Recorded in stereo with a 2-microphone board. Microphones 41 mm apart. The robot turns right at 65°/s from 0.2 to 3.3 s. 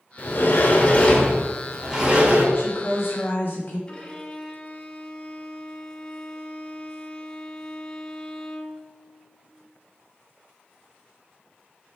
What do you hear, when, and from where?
0.2 s a sliding door: 80° left, 1.3 m; by 2.5 s 130° right, 1.3 m
2.5 s a woman speaking: 65° left, 1.5 m; by 3.8 s 115° left, 1.5 m
3.9 s a violin: 20° left (ahead or behind), 0.9 m